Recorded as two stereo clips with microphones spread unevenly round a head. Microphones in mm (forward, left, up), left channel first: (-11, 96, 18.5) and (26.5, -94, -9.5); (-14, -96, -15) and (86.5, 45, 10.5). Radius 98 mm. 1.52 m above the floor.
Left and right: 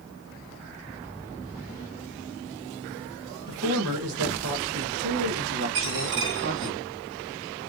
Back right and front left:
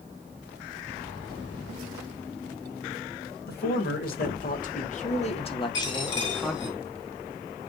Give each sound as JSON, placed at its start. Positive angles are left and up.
{"t": 3.5, "sound": "a man speaking", "azimuth_deg": -95, "distance_m": 3.0}
{"t": 5.7, "sound": "a dropped coin", "azimuth_deg": -110, "distance_m": 7.0}